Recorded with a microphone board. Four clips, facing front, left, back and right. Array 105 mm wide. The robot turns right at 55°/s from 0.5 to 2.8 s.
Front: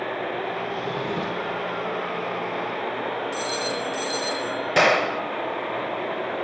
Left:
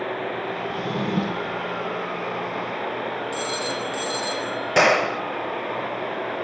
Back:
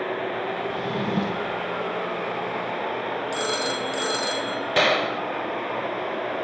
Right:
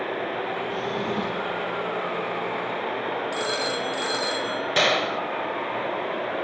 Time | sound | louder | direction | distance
0.7 | a drawer | left 4 dB, back 1 dB | 110° left | 3.5 m
3.3 | a phone ringing | right 1 dB, back 1 dB | 160° right | 6 m
4.8 | a gunshot | left 5 dB, front 2 dB | 60° left | 0.8 m